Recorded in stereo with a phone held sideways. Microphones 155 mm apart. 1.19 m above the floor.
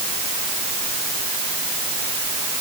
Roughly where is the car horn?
No car horn in this recording.